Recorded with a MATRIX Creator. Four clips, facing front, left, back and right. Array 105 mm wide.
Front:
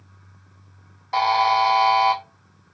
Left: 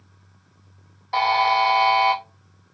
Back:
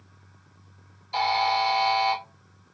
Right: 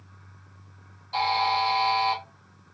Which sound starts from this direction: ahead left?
A buzzer, at 1.1 s.